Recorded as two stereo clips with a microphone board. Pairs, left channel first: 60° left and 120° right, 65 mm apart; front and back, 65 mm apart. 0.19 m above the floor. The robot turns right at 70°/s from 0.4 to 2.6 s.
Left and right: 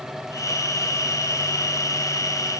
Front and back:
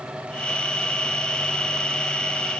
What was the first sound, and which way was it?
Only background noise.